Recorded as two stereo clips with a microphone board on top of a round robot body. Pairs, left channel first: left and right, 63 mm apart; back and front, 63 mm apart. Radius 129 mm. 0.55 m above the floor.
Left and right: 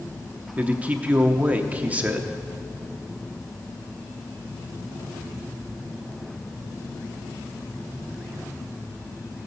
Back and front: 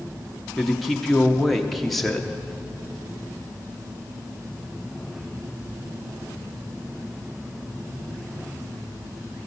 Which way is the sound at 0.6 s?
95° right.